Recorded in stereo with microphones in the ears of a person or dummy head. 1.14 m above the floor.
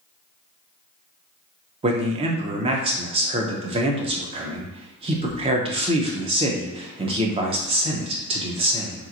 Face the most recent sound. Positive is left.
turn(degrees=-30)  # may be behind; listen again after turning